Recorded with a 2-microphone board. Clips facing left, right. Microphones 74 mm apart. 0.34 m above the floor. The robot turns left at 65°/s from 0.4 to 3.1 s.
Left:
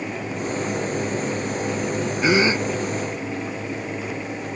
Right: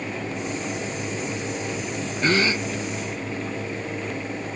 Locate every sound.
2.2 s a gasp: 10° left (ahead or behind); by 2.6 s 35° left (ahead or behind)